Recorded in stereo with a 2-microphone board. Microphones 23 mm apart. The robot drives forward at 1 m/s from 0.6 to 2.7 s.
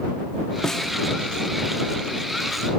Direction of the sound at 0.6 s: 20° left (ahead or behind).